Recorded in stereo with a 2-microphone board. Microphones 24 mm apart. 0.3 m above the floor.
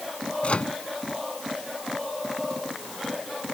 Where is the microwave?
50° left (ahead or behind).